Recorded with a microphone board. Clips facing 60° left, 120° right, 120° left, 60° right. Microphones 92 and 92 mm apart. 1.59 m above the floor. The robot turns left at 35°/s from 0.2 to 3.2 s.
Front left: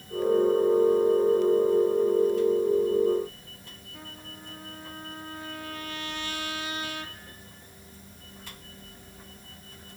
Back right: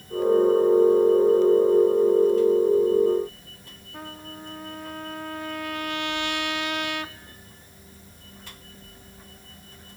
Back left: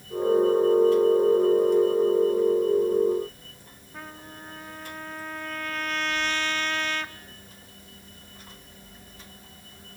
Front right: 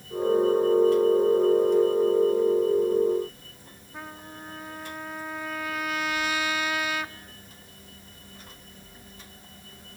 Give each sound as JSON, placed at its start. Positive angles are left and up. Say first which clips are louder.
{"t": 3.9, "sound": "a trumpet", "louder": "back right 8 dB, front right 1 dB", "azimuth_deg": -145, "distance_m": 1.1}